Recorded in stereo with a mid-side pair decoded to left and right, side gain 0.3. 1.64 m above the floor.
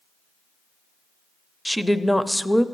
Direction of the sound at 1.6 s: 5° left.